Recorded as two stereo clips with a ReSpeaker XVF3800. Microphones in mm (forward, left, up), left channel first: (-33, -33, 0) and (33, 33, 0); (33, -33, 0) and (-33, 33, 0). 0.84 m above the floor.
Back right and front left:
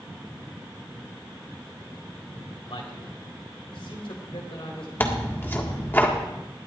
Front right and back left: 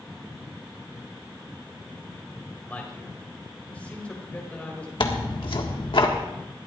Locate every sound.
2.7 s a man speaking: 120° right, 4 m
5.0 s tearing paper: 65° right, 1.6 m